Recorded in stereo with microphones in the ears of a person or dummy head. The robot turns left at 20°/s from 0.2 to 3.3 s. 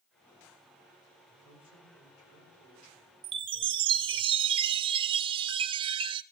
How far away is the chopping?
I don't hear chopping.